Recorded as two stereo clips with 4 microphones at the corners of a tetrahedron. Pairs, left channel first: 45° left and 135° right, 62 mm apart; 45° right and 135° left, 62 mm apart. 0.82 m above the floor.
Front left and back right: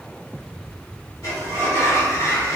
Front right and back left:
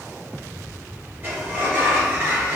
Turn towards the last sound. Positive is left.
turn(degrees=80)